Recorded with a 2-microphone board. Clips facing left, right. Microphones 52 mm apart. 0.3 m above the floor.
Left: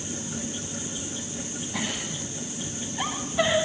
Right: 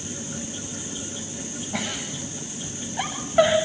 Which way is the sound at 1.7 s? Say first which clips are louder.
Right 1 dB; 45° right (ahead or behind).